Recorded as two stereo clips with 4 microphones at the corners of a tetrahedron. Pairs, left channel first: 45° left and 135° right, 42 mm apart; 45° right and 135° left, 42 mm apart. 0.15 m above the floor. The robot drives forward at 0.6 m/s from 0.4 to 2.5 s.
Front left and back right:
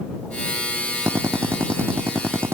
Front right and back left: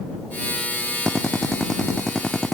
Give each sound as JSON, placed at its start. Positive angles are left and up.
{"t": 1.1, "sound": "a drill", "azimuth_deg": -130}